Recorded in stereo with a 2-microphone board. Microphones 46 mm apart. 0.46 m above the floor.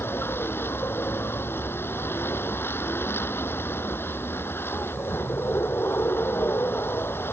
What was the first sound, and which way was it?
A vehicle, 55° left (ahead or behind).